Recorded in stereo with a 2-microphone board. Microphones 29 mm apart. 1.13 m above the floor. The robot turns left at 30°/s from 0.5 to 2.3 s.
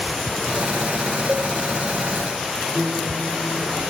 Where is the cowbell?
60° right (ahead or behind), 0.9 m.